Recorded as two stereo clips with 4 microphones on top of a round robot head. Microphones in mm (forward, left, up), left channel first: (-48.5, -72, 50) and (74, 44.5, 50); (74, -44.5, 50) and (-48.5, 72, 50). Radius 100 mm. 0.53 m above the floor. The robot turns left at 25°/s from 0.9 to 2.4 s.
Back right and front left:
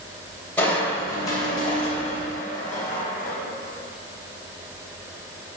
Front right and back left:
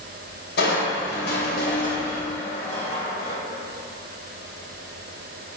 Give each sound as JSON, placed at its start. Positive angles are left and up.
{"t": 0.6, "sound": "crushing", "azimuth_deg": -55, "distance_m": 3.0}